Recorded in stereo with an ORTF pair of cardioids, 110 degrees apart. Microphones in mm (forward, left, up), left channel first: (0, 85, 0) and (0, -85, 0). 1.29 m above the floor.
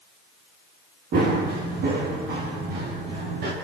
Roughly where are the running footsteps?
Ahead right.